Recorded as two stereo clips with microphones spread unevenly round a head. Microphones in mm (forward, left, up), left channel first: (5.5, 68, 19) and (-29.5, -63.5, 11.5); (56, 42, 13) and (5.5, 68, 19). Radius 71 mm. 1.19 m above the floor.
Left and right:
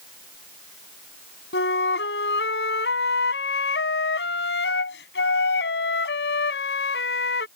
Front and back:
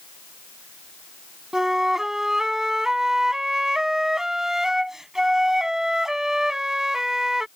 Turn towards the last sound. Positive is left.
turn(degrees=70)